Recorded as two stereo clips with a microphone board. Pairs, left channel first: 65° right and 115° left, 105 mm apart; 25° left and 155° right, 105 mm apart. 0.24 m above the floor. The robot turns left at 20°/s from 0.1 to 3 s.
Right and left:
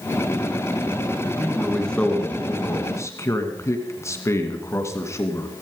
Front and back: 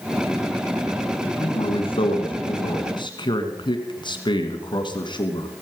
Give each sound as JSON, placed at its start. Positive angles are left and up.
{"t": 1.4, "sound": "a man speaking", "azimuth_deg": 20, "distance_m": 2.0}